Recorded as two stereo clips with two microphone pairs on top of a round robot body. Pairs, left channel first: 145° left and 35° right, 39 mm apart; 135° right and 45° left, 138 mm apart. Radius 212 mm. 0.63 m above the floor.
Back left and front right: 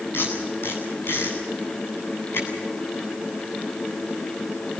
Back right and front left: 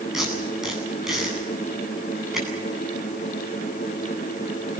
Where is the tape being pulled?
135° left, 9 m.